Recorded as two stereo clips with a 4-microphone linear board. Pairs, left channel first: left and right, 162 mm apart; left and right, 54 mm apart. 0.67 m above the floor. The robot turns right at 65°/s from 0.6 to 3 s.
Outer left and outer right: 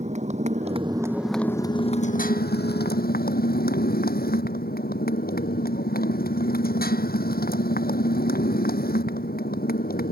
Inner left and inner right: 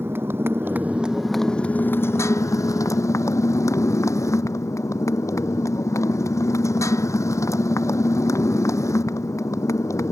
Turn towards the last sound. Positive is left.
turn(degrees=110)